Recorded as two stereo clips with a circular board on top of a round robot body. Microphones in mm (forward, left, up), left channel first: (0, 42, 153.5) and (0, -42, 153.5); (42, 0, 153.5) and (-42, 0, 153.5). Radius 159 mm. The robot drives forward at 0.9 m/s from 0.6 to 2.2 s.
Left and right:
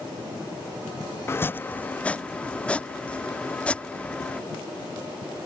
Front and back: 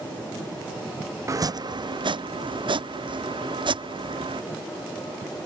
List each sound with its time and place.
1.3 s chopping: 140° left; by 4.4 s 165° left